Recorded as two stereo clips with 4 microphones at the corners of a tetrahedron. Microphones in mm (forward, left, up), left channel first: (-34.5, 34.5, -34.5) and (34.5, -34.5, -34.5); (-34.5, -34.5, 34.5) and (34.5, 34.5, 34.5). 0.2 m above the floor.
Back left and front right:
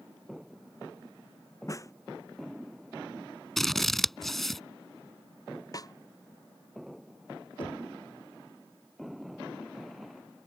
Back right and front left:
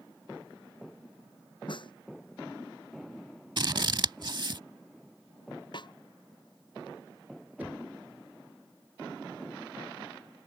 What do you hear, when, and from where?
1.7 s a snare drum: 170° right
3.6 s scissors: 50° left
5.7 s a snare drum: 175° right
7.6 s knocking: 115° left